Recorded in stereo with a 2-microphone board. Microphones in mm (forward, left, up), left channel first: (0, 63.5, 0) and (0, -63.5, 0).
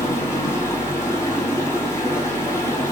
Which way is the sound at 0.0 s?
20° left (ahead or behind).